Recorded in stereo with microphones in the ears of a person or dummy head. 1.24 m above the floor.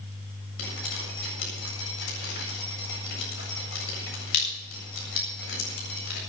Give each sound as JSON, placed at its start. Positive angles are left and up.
{"t": 0.6, "sound": "dripping", "side_deg": 80, "distance_m": 7.5}